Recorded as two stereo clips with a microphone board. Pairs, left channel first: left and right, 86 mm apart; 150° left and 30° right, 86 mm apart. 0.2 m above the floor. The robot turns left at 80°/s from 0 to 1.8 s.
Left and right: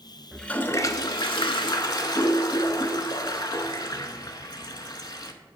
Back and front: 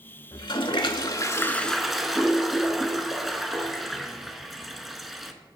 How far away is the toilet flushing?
About 0.5 m.